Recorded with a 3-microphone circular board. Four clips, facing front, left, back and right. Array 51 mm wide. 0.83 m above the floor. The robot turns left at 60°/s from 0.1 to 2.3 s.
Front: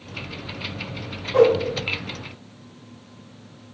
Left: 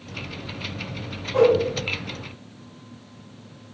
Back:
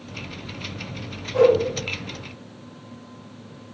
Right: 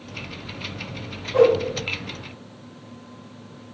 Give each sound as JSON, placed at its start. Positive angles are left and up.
{"t": 1.3, "sound": "a whoosh", "azimuth_deg": -15, "distance_m": 0.7}